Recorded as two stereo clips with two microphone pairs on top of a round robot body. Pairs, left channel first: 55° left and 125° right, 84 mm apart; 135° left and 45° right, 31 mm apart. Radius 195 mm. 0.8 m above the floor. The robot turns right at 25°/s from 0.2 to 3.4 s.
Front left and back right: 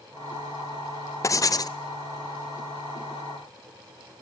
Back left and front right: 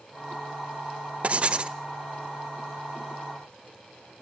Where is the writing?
Straight ahead, 0.7 m; by 1.8 s 15° left, 0.7 m.